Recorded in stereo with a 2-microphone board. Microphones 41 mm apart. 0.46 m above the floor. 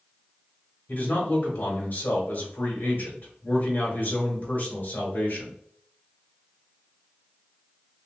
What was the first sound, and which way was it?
A man speaking, 60° left (ahead or behind).